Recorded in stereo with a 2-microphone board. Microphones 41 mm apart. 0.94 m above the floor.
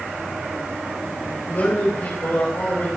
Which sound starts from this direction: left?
A man speaking, at 1.5 s.